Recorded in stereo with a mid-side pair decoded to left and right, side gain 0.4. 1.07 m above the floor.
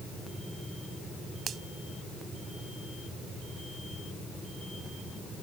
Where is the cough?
I don't hear a cough.